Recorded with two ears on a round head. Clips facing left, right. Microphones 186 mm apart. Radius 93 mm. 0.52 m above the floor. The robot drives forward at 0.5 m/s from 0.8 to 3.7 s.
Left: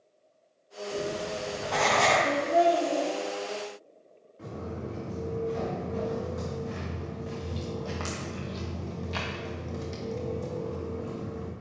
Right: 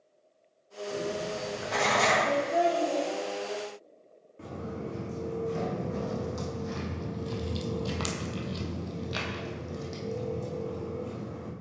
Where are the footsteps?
50° right (ahead or behind), 2 m; by 11.5 s 5° left (ahead or behind), 2 m.